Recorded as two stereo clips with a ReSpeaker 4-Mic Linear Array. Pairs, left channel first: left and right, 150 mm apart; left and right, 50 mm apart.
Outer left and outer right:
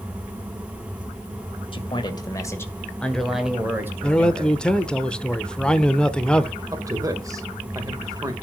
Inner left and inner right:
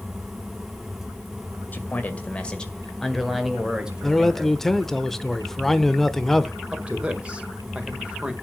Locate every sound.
1.7 s a man speaking: 35° left (ahead or behind), 2 m; by 4.6 s 25° right (ahead or behind), 2.5 m
4.0 s a man speaking: 5° left (ahead or behind), 0.8 m
6.7 s a man speaking: 20° right (ahead or behind), 1.6 m